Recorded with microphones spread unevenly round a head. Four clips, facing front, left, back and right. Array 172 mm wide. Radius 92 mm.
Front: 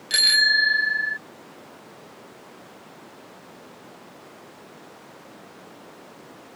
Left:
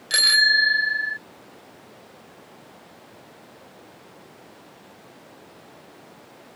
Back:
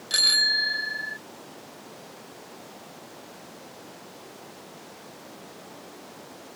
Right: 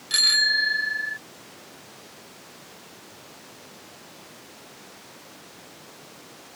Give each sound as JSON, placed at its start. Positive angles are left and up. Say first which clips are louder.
{"t": 0.1, "sound": "a bicycle bell", "louder": "left 5 dB, front 7 dB", "azimuth_deg": 115}